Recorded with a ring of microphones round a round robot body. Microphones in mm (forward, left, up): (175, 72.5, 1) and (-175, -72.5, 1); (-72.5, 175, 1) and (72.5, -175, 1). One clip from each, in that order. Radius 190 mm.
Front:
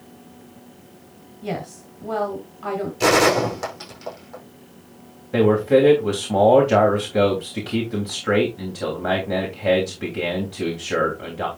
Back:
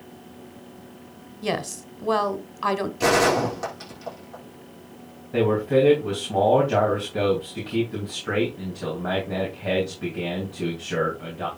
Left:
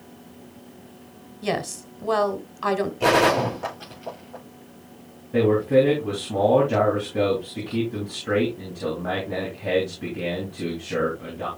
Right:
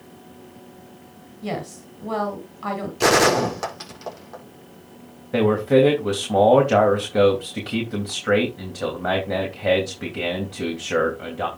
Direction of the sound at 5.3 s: 40° right.